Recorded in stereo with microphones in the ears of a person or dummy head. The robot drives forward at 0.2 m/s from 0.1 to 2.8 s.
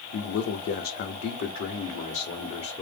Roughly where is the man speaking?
Left.